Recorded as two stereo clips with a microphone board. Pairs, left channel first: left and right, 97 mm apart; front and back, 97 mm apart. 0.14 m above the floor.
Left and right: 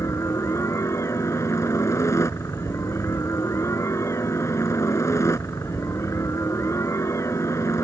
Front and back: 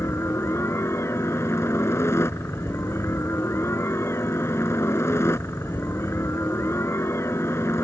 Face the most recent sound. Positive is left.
turn(degrees=45)